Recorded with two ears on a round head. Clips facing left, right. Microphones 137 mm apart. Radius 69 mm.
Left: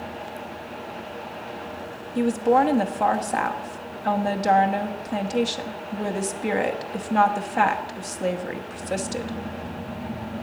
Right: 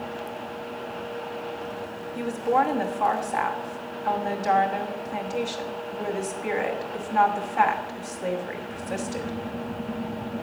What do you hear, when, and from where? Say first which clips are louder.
2.1 s a woman speaking: left 4 dB; 45° left (ahead or behind), 1.1 m